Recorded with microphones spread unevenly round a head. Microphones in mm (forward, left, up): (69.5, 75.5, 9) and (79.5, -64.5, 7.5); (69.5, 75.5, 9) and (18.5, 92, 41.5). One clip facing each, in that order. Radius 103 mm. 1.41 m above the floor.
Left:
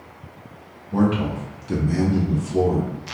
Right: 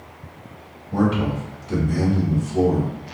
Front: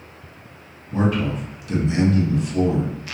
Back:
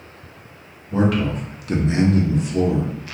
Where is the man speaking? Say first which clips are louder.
Even, back 2 dB; straight behind, 0.9 m; by 2.9 s 80° left, 1.2 m.